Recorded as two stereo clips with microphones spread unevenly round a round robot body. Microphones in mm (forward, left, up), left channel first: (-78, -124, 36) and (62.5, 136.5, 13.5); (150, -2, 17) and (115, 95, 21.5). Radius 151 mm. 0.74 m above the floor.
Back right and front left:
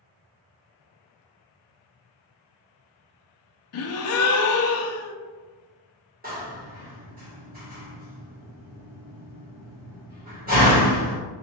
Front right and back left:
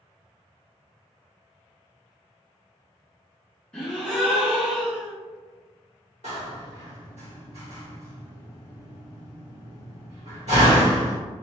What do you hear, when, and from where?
3.7 s a gasp: 150° right, 0.6 m
6.2 s a door slam: 120° left, 1.7 m